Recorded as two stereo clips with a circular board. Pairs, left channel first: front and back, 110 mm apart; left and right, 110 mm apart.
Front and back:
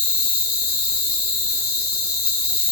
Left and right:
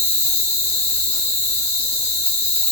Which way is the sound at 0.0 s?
105° left.